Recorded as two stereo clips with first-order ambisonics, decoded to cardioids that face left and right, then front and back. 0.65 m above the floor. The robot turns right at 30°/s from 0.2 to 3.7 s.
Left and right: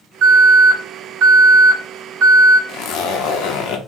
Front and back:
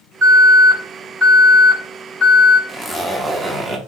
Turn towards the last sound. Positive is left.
turn(degrees=105)